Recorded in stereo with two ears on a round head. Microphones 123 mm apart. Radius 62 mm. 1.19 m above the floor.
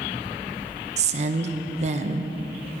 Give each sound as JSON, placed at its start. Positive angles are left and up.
{"t": 1.0, "sound": "a woman speaking", "side_deg": -55, "distance_m": 0.9}